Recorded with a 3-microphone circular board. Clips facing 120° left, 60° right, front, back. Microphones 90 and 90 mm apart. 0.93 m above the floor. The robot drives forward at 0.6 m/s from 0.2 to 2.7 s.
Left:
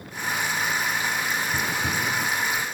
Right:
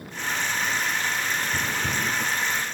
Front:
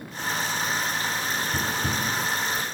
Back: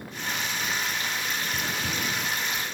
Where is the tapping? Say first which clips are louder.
Left 1 dB, front 3 dB; 35° left; by 2.6 s 80° left.